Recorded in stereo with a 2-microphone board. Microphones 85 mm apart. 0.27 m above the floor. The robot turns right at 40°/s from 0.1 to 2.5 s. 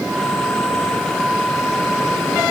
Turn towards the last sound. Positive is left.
No sound to turn to.